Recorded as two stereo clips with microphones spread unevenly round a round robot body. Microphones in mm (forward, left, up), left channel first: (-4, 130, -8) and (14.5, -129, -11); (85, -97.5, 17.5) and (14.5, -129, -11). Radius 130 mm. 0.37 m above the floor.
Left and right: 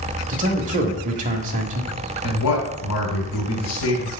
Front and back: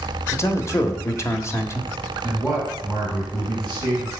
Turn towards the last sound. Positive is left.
turn(degrees=110)